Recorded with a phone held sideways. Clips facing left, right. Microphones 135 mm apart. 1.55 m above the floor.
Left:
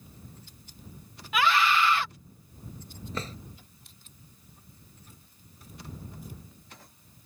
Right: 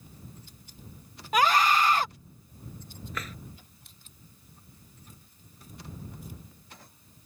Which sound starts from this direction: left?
A drawer, at 3.1 s.